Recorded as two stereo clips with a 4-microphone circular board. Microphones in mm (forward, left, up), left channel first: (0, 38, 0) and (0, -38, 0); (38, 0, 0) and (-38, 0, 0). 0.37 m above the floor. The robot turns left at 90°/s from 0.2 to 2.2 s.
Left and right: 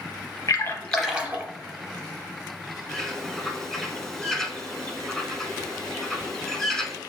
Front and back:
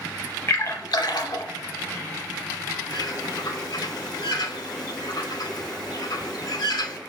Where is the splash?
50° left, 0.6 m; by 1.4 s 40° right, 0.6 m.